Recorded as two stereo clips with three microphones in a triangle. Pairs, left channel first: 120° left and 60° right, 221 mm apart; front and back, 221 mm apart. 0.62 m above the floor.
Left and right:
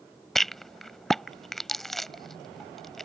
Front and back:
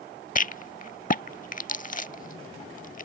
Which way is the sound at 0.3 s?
30° left.